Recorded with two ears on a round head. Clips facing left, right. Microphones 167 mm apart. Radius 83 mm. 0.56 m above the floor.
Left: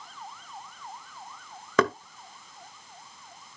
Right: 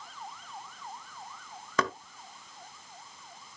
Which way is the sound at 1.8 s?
50° left (ahead or behind).